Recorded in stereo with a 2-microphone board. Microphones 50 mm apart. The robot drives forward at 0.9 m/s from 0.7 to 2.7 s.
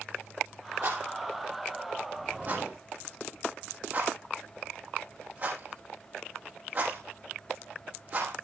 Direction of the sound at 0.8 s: 50° right (ahead or behind).